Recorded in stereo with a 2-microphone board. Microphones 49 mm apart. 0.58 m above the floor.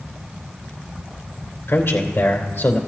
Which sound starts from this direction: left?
A man speaking, at 1.7 s.